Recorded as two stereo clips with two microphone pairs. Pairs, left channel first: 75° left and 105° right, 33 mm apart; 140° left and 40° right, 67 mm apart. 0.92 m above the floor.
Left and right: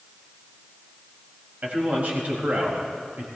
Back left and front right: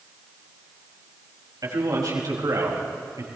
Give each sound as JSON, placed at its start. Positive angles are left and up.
{"t": 1.6, "sound": "a man speaking", "azimuth_deg": -60, "distance_m": 5.0}